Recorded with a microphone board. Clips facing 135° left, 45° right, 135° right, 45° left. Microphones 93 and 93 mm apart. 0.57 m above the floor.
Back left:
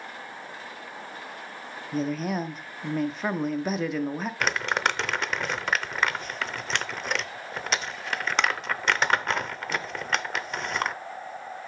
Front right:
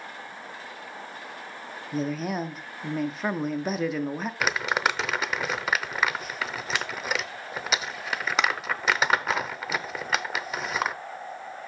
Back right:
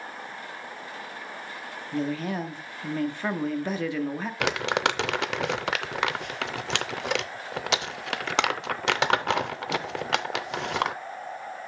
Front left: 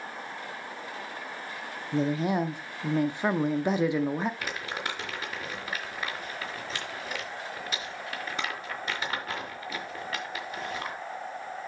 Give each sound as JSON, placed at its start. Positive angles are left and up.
{"t": 1.9, "sound": "a woman speaking", "azimuth_deg": 40, "distance_m": 0.6}
{"t": 4.4, "sound": "crumpling", "azimuth_deg": -130, "distance_m": 0.5}